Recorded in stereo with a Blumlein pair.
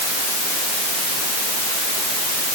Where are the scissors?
No scissors in this recording.